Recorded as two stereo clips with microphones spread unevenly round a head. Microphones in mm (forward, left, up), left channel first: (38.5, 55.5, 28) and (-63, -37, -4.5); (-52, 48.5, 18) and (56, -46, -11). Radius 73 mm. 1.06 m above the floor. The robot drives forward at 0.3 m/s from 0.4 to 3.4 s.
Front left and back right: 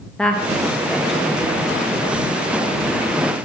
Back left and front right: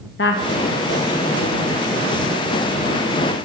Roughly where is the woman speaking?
Behind left.